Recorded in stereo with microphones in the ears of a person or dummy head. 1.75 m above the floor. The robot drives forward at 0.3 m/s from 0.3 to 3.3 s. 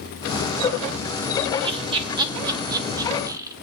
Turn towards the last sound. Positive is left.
turn(degrees=-15)  # may be behind; listen again after turning